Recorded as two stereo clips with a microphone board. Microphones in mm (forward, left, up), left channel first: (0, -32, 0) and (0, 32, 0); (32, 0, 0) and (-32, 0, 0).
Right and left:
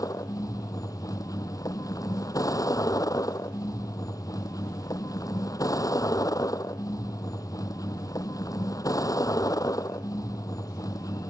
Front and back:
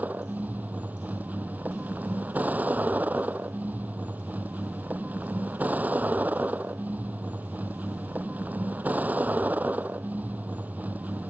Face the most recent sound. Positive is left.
turn(degrees=-115)